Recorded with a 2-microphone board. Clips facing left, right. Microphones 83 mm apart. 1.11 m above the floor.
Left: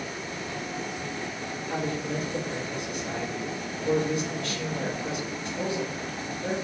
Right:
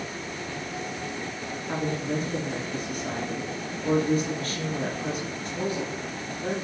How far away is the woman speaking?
About 1.8 m.